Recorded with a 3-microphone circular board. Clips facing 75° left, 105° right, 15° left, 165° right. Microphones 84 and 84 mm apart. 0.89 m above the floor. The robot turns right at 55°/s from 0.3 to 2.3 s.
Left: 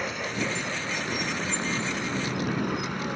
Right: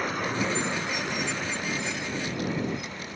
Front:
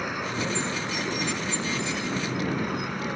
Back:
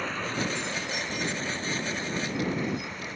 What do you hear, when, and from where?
0.0 s a vehicle: 60° right; by 3.2 s 50° left